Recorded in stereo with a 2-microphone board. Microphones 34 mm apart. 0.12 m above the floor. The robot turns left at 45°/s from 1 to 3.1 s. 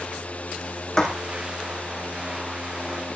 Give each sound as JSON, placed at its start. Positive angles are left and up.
{"t": 1.0, "sound": "writing", "side_deg": 15, "distance_m": 3.5}